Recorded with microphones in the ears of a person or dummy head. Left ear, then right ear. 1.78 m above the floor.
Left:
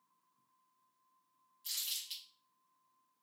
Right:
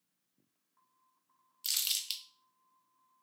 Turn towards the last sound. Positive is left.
turn(degrees=-45)  # may be behind; listen again after turning